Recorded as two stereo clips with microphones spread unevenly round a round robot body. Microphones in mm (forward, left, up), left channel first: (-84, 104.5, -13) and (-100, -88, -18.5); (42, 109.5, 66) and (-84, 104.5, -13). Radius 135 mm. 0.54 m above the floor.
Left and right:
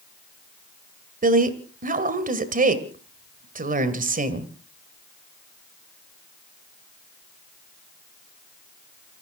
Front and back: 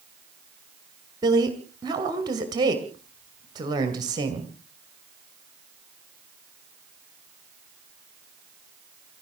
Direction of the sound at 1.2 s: 135° right.